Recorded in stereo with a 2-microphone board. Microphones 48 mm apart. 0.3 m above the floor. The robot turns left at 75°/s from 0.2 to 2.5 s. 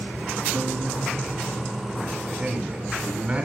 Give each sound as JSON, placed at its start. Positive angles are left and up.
{"t": 0.5, "sound": "a guitar", "azimuth_deg": -45, "distance_m": 2.0}
{"t": 2.3, "sound": "a man speaking", "side_deg": -5, "distance_m": 3.0}